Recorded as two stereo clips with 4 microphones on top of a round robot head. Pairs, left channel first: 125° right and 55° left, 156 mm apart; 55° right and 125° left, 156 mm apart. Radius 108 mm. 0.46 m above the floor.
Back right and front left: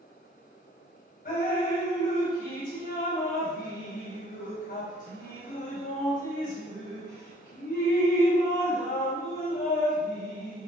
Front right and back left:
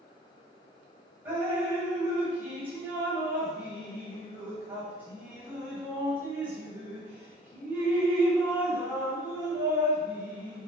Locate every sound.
1.2 s dripping: 155° right, 3 m